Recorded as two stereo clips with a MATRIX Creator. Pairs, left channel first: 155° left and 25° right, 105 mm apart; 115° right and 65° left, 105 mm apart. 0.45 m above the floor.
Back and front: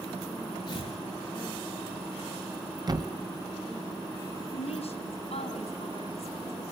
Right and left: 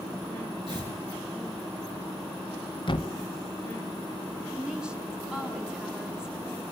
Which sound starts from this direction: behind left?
A woman speaking, at 4.5 s.